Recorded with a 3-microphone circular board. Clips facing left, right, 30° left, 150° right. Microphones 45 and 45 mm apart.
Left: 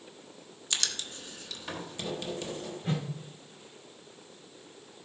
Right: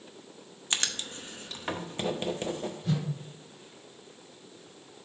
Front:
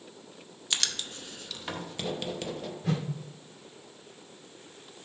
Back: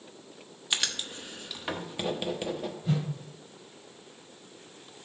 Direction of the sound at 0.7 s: 85° right.